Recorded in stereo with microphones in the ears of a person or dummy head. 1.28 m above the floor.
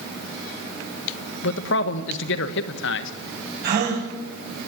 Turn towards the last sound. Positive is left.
turn(degrees=-55)  # may be behind; listen again after turning